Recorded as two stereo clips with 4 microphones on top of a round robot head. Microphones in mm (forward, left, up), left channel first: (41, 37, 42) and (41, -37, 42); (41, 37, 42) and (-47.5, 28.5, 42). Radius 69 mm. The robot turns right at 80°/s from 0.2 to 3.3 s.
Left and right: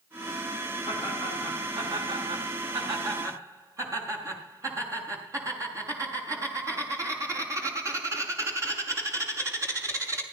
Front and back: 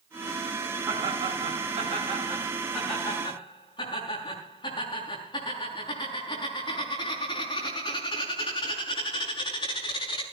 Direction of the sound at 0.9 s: 120° left.